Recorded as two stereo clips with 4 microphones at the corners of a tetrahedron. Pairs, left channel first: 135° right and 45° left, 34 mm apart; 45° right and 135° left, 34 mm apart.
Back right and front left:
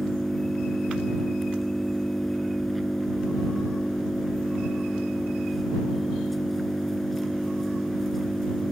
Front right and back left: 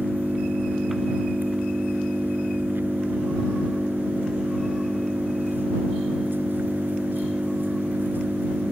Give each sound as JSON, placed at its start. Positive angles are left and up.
{"t": 0.0, "sound": "an engine running", "azimuth_deg": 140}